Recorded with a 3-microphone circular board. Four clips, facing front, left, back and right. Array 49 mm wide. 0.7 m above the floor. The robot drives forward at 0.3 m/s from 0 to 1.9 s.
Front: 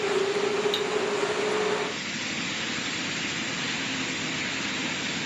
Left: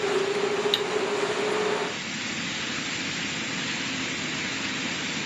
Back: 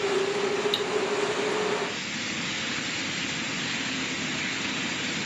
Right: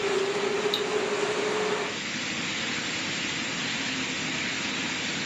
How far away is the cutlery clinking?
About 0.6 m.